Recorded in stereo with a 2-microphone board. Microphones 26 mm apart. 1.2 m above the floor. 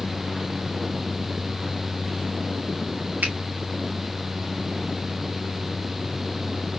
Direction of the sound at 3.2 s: 75° right (ahead or behind).